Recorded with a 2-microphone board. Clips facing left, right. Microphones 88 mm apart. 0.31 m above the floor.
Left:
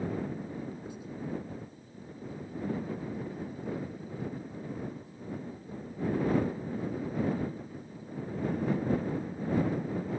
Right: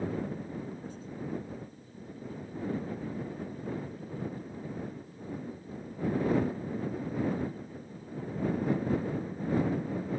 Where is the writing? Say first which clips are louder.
Left 1 dB; 15° left (ahead or behind).